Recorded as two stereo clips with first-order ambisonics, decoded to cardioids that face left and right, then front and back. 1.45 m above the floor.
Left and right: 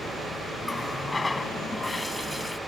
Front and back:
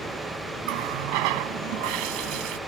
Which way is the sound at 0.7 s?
175° left.